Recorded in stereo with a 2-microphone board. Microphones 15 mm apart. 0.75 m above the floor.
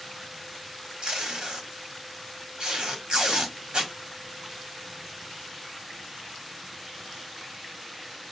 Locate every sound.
1.0 s tape being pulled: 70° right (ahead or behind), 1.5 m